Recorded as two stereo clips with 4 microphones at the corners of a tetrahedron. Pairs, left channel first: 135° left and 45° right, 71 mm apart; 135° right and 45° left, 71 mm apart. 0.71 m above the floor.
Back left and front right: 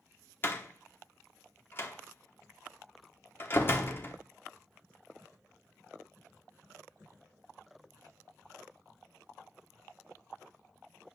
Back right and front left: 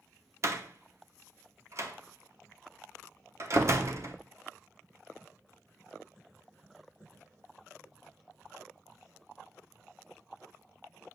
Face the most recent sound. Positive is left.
turn(degrees=80)